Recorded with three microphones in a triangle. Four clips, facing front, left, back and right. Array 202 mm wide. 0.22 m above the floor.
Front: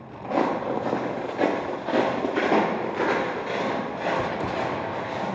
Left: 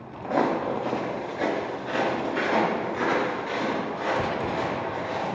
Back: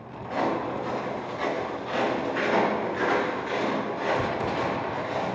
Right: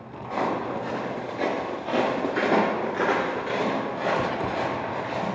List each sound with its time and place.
0.2 s footsteps: 50° left, 0.9 m; by 5.3 s 65° right, 3 m